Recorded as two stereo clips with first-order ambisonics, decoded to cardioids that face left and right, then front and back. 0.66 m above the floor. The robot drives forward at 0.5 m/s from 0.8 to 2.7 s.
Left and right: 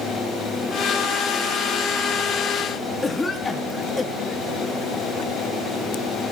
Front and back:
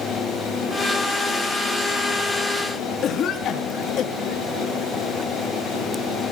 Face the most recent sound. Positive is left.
turn(degrees=20)